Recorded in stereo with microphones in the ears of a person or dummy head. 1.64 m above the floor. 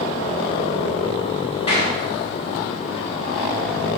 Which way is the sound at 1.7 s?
30° left (ahead or behind).